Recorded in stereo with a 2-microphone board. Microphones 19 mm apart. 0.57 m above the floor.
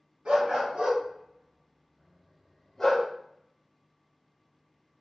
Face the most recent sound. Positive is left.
turn(degrees=35)  # may be behind; listen again after turning